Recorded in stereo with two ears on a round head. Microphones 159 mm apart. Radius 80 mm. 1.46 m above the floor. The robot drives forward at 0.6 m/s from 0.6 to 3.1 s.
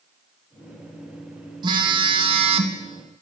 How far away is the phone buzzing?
About 1.9 m.